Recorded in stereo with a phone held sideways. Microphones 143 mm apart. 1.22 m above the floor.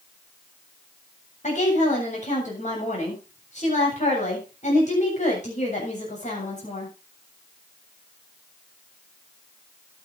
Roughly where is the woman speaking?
Left.